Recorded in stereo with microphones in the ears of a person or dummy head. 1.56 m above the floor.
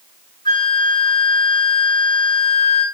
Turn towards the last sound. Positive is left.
turn(degrees=25)  # may be behind; listen again after turning